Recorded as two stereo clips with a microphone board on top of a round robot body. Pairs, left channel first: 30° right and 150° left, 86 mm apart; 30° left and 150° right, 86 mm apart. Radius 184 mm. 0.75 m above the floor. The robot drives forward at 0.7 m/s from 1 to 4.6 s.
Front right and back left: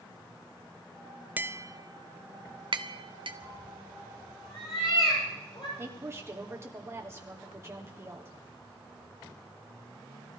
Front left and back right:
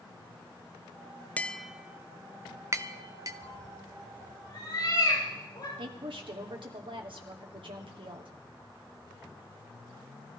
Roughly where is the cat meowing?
Ahead.